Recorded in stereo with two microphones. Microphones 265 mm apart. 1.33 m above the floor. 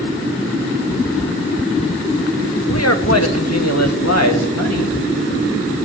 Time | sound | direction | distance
2.7 | a man speaking | 65° left (ahead or behind) | 1.2 m